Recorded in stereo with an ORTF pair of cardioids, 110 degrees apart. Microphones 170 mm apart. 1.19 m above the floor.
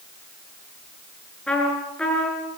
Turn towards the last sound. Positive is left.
turn(degrees=5)